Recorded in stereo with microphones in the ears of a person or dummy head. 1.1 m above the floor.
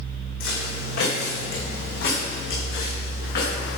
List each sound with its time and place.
0.4 s footsteps: 55° left (ahead or behind), 2.5 m; by 3.8 s 60° left (ahead or behind), 4.5 m